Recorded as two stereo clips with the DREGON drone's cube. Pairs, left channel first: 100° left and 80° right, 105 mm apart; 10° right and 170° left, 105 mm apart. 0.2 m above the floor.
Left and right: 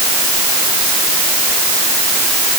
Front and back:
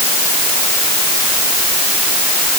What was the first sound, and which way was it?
Only background noise.